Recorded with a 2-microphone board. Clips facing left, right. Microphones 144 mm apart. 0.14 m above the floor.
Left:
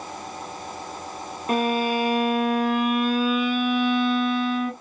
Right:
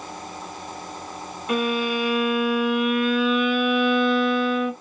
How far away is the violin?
About 1.0 m.